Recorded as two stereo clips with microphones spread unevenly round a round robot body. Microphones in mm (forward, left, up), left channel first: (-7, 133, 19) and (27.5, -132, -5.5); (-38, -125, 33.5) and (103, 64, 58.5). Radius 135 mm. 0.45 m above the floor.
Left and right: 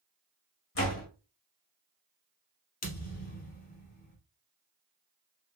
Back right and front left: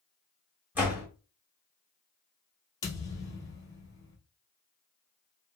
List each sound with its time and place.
0.8 s a door slam: 140° left, 2 m
2.8 s a thud: 155° left, 1.8 m